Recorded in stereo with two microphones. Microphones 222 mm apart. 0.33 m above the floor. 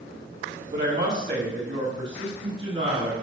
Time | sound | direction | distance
0.7 | a woman speaking | 55° right (ahead or behind) | 1.8 m